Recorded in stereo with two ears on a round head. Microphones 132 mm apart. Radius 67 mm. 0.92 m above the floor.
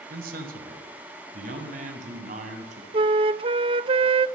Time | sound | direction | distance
0.1 | a man speaking | 75° right (ahead or behind) | 4 m
2.9 | a flute | 35° right (ahead or behind) | 0.7 m